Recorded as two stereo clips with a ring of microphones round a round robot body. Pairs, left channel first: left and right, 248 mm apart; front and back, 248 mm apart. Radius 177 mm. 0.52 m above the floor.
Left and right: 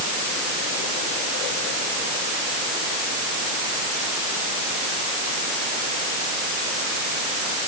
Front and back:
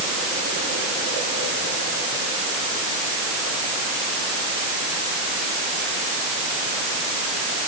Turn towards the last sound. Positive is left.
No sound to turn to.